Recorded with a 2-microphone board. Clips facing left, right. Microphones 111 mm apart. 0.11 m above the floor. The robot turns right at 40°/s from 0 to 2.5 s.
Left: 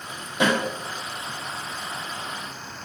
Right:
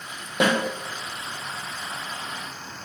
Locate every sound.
0.4 s a snare drum: 70° right (ahead or behind), 1.8 m; by 0.5 s 65° right (ahead or behind), 1.8 m